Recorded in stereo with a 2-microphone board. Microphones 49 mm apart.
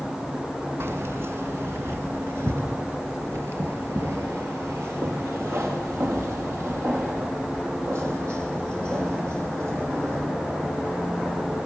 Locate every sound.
0.8 s keys jangling: 70° right (ahead or behind), 1.5 m